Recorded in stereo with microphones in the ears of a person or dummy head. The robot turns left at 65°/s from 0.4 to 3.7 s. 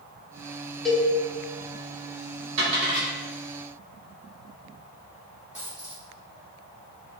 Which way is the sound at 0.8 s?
Centre (ahead or behind).